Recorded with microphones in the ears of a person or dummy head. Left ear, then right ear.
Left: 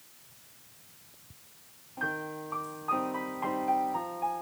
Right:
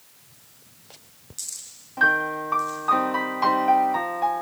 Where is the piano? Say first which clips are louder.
Right 14 dB; 65° right (ahead or behind).